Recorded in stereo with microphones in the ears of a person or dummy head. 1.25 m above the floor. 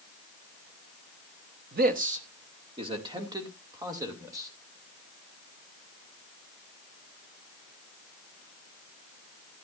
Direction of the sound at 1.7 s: 45° right (ahead or behind).